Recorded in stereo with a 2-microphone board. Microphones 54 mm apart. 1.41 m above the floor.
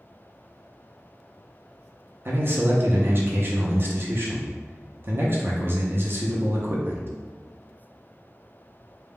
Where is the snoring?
I don't hear snoring.